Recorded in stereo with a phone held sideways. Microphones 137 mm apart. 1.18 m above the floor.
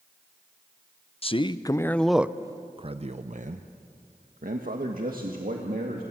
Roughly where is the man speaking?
Left.